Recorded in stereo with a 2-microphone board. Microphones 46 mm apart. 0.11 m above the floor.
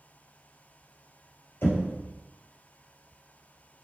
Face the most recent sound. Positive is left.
turn(degrees=60)  # may be behind; listen again after turning